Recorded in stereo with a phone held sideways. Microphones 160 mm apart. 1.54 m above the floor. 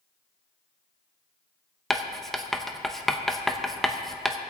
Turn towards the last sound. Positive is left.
turn(degrees=0)  # may be behind; listen again after turning